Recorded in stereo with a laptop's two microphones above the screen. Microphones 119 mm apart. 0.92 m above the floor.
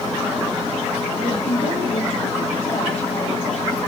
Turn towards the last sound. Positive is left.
turn(degrees=75)  # may be behind; listen again after turning